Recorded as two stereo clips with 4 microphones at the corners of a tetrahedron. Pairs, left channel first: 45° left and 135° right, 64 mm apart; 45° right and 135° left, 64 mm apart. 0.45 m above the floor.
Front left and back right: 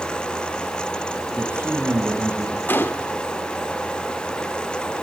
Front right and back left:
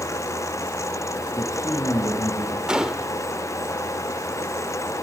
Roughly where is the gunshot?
Ahead left.